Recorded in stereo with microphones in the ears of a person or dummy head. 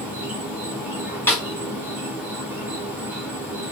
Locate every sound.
0.0 s an insect: 10° right (ahead or behind), 0.9 m
1.3 s a snare drum: 15° left (ahead or behind), 3.5 m